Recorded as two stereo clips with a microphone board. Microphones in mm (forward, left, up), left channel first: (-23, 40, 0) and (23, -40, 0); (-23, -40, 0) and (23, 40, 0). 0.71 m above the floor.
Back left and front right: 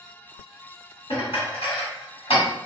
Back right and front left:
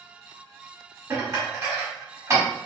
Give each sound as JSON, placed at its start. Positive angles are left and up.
{"t": 1.1, "sound": "dishes clattering", "azimuth_deg": 120, "distance_m": 1.4}